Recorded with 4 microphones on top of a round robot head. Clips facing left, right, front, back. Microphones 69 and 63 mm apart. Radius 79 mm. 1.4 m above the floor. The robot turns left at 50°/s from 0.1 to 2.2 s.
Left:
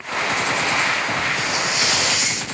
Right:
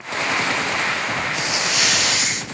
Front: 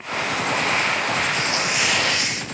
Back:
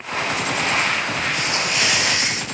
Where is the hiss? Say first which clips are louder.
Left 1 dB, even; 65° right, 1.0 m; by 2.4 s 110° right, 1.0 m.